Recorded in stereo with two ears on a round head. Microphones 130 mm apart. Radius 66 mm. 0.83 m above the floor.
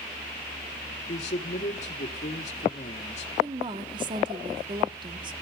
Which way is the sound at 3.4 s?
35° right (ahead or behind).